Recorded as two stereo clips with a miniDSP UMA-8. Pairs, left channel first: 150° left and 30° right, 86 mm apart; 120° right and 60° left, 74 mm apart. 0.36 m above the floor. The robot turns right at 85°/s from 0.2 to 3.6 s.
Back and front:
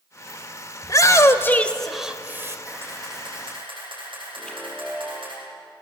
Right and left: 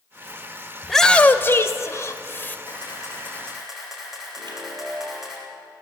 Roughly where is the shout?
Behind left.